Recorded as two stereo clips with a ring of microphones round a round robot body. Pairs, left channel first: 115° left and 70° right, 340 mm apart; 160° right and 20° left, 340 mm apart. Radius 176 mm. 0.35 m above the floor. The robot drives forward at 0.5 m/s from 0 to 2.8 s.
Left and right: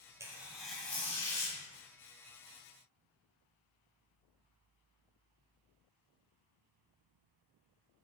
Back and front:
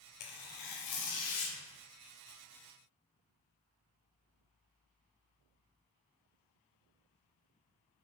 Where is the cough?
No cough in this recording.